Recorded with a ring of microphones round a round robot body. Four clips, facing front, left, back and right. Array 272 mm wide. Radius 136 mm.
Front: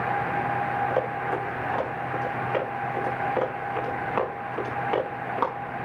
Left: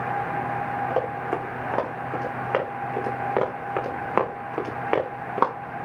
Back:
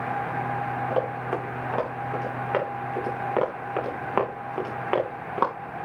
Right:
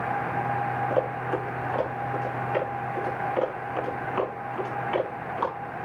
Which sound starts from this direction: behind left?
Running footsteps, at 0.9 s.